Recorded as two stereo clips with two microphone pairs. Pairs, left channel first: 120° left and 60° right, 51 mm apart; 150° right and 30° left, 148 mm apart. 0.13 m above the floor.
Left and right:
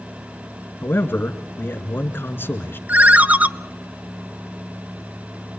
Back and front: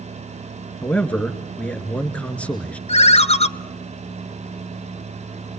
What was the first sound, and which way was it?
A man speaking, 130° left.